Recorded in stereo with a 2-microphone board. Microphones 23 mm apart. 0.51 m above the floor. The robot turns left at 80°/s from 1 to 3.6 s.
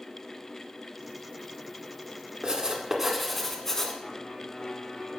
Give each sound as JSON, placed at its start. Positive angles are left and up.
{"t": 2.4, "sound": "writing", "azimuth_deg": -115, "distance_m": 1.6}
{"t": 4.0, "sound": "a piano", "side_deg": 50, "distance_m": 1.5}